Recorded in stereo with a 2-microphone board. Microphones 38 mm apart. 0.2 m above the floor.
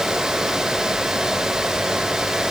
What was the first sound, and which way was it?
Only background noise.